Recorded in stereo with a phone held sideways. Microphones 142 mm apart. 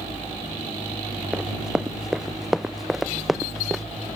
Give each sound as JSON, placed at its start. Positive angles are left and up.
{"t": 1.3, "sound": "running footsteps", "side_deg": -5}